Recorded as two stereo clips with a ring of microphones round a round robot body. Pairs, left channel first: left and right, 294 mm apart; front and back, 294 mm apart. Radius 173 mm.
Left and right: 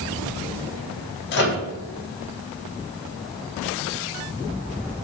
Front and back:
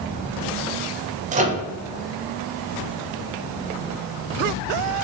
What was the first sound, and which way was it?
A microwave, 125° left.